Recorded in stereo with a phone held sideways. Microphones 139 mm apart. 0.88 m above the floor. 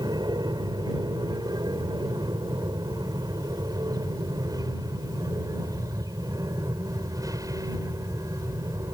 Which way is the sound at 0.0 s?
30° right (ahead or behind).